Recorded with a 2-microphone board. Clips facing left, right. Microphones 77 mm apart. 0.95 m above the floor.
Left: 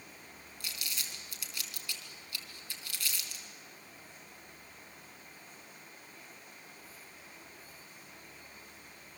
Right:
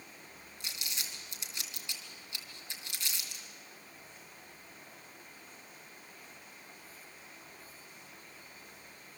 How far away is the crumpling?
About 3 m.